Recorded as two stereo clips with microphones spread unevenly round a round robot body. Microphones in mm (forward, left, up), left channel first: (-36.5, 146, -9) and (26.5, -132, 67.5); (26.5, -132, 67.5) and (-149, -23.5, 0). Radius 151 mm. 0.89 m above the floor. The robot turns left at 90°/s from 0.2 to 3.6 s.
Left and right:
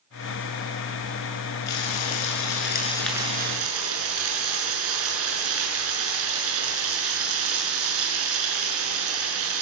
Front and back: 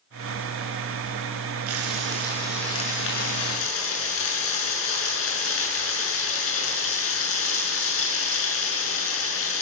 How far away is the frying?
About 7 m.